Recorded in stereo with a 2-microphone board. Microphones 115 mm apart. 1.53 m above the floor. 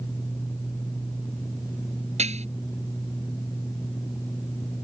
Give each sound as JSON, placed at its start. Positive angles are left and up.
{"t": 2.2, "sound": "dishes clattering", "side_deg": -75}